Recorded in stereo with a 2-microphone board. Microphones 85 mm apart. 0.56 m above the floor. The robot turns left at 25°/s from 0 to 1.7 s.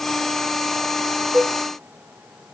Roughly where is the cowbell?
Right.